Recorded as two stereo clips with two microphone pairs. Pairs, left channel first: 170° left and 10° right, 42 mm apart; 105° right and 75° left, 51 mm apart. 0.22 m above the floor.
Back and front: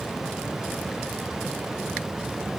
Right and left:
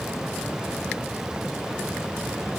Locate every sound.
Only background noise.